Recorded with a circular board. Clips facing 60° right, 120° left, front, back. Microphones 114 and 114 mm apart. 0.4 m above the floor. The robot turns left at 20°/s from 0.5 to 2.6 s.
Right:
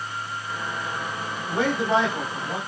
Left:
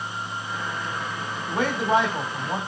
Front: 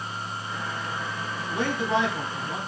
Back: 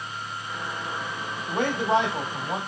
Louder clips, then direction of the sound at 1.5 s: Even, back 3 dB; 150° right.